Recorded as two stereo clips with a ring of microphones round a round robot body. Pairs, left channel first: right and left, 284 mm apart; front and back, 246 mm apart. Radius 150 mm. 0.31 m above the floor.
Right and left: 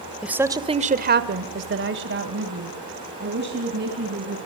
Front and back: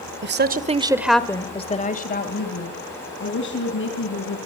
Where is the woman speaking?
175° left, 1.3 m; by 4.4 s 35° left, 4 m.